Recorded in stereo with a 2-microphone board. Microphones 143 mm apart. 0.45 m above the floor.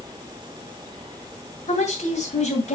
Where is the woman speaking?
55° left (ahead or behind), 2.5 m.